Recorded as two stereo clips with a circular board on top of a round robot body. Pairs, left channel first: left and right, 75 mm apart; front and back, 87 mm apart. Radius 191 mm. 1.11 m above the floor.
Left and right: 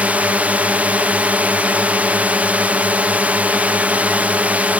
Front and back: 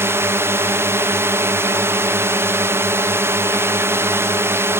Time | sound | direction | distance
0.0 | a drone | 145° right | ?